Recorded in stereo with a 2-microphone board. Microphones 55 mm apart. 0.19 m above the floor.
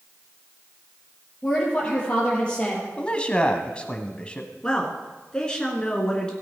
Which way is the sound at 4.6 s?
15° left (ahead or behind).